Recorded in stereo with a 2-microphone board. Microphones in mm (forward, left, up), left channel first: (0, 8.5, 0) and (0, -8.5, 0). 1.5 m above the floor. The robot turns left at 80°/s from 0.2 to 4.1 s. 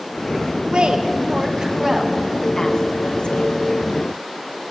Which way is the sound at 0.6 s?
60° right (ahead or behind).